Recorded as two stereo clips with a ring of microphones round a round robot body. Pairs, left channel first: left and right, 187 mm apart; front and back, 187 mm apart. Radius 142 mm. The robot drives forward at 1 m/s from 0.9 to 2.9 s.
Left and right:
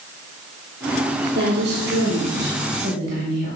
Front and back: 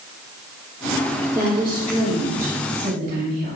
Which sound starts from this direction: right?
A woman speaking, at 1.4 s.